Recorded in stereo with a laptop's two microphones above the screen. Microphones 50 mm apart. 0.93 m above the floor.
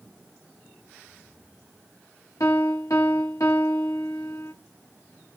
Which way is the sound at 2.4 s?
75° left (ahead or behind).